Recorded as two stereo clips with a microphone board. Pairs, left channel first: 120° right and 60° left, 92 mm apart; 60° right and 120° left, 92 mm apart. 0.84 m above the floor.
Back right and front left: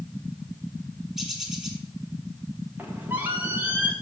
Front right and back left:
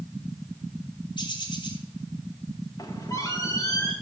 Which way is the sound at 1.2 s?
30° right.